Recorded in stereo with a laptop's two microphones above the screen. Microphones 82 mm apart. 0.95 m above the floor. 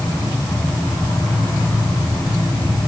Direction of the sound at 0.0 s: 70° left (ahead or behind).